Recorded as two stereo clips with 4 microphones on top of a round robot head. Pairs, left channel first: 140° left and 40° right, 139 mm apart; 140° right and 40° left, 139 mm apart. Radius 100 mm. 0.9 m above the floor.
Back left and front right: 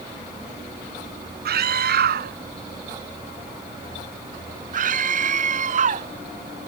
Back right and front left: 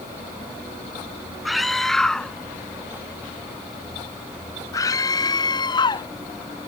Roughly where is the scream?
Ahead right.